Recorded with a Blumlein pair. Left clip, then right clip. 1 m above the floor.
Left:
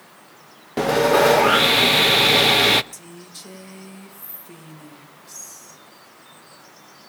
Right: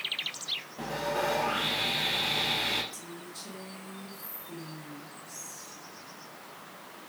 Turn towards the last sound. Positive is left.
turn(degrees=30)